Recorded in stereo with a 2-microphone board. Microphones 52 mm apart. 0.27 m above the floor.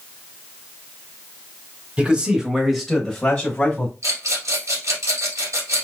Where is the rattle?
80° right, 1.9 m.